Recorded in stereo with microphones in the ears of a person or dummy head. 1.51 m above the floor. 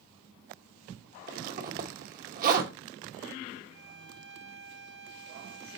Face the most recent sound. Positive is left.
turn(degrees=-70)  # may be behind; listen again after turning